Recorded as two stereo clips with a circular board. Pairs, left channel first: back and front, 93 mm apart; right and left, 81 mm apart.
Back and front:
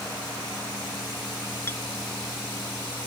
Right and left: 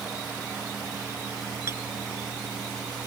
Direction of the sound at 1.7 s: 125° left.